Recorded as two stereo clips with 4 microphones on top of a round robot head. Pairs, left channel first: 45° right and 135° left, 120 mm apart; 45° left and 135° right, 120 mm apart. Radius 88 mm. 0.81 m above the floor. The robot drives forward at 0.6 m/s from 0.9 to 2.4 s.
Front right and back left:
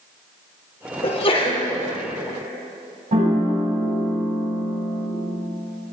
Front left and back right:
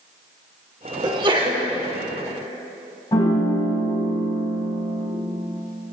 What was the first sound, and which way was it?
A sneeze, 85° right.